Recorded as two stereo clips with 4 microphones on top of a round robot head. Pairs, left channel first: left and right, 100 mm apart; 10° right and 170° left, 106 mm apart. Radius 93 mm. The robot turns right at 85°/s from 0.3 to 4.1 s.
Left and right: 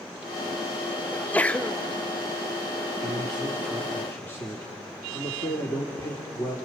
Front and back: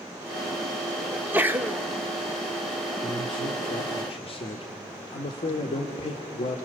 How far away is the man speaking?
About 1.9 m.